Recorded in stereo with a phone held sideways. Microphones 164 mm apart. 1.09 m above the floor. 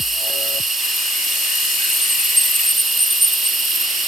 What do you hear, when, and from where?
0.0 s an insect: centre (ahead or behind)